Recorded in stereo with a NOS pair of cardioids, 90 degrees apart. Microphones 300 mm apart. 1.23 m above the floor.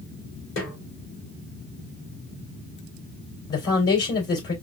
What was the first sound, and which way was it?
A snare drum, 45° left.